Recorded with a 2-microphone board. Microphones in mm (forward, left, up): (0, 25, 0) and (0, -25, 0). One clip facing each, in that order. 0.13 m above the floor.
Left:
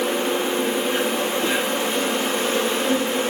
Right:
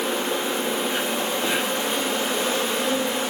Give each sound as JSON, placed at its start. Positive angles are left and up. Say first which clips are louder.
{"t": 0.0, "sound": "an insect", "louder": "left 3 dB", "side_deg": 50, "distance_m": 1.8}